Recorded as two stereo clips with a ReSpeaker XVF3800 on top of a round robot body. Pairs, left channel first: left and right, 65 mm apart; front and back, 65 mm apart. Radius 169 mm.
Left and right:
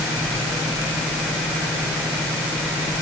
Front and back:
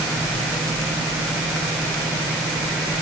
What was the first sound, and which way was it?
Only background noise.